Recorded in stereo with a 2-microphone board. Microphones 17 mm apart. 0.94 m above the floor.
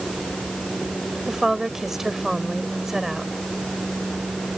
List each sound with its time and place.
1.3 s a woman speaking: 25° right (ahead or behind)